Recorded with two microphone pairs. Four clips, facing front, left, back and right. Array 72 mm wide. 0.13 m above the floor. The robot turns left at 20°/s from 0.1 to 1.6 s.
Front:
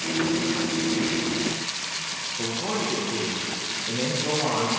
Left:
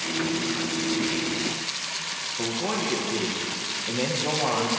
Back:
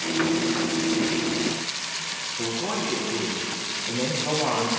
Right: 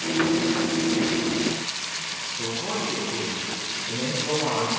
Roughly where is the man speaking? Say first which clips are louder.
Left 2 dB, even; left.